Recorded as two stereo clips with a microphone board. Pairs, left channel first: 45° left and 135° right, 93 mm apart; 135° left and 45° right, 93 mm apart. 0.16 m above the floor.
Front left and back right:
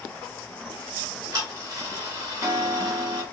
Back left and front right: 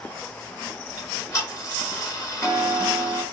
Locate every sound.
1.0 s ticking: straight behind, 2 m